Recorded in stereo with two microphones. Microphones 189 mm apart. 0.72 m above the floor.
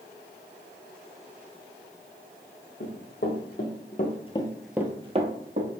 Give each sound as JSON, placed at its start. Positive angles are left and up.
{"t": 2.8, "sound": "running footsteps", "side_deg": 65, "distance_m": 2.0}